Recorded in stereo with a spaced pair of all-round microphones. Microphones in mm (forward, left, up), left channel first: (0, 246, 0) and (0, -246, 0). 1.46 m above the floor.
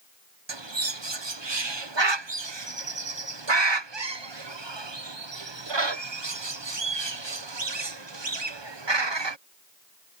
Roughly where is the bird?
Right.